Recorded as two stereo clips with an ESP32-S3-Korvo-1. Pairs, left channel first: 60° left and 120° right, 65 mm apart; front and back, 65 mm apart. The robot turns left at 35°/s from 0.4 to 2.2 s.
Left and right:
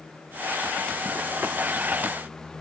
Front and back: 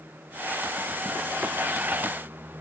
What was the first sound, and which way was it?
Only background noise.